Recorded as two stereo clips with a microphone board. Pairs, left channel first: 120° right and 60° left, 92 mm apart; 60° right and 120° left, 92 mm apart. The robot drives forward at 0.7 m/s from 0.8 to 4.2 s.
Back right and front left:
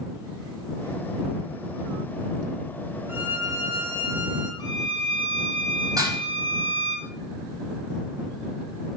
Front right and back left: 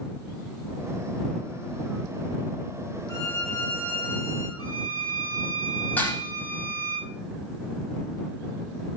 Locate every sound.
3.1 s a violin: 5° right, 4.5 m
4.6 s a violin: 90° right, 5 m
6.0 s dishes clattering: 10° left, 6.5 m